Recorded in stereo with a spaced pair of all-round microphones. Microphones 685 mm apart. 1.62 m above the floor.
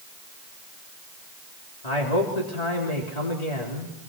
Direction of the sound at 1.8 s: 65° left (ahead or behind).